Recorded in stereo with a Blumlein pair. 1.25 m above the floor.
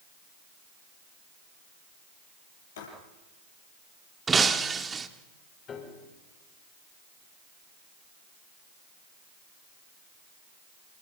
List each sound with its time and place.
2.8 s writing: 60° left, 8 m
4.3 s breaking glass: 15° right, 1.8 m
5.7 s a piano: 30° left, 6 m